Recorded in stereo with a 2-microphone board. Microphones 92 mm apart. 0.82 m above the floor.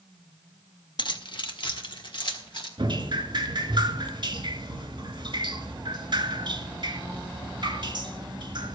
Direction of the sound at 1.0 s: 60° left (ahead or behind).